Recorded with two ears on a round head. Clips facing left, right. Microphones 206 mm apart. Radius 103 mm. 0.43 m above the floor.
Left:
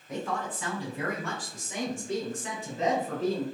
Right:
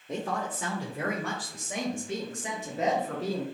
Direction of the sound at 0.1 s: 25° right (ahead or behind).